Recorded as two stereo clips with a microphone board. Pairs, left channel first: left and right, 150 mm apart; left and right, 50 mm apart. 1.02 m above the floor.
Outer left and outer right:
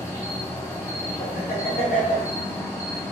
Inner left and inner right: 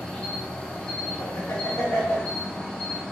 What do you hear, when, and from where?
0.0 s an insect: 20° left (ahead or behind), 1.0 m
1.2 s laughter: 85° left, 2 m